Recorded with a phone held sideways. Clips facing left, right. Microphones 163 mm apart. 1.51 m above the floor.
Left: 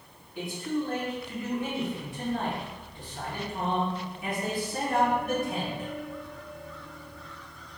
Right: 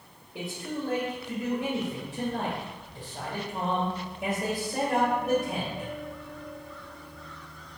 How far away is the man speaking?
About 1.3 m.